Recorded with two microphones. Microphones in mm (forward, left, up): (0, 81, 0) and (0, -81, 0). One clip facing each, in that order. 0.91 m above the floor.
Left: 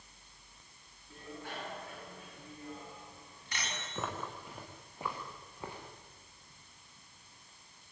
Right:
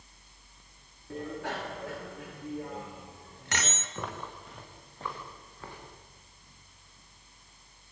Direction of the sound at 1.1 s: 80° right.